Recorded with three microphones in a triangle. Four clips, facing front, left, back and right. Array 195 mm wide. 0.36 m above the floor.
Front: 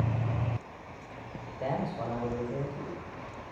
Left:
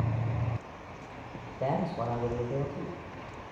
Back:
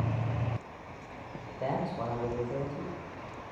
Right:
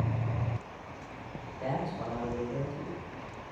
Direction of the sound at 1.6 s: 90° left.